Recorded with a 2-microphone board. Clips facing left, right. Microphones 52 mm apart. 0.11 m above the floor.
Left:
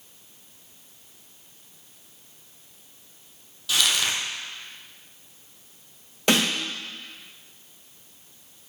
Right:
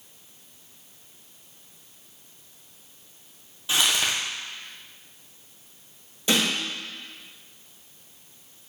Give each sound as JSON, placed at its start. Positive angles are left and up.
{"t": 3.7, "sound": "crumpling", "side_deg": -25, "distance_m": 1.6}
{"t": 6.3, "sound": "a snare drum", "side_deg": 65, "distance_m": 3.0}